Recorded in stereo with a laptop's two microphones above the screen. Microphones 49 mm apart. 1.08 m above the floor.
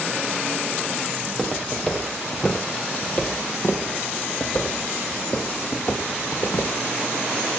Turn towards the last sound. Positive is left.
turn(degrees=65)  # may be behind; listen again after turning